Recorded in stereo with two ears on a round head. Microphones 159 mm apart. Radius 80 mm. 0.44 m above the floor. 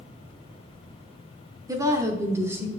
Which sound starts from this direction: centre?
A woman speaking, at 1.7 s.